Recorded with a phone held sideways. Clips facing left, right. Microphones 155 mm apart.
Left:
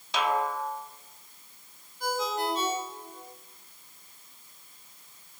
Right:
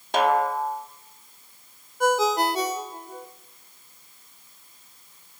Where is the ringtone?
80° right, 2 m.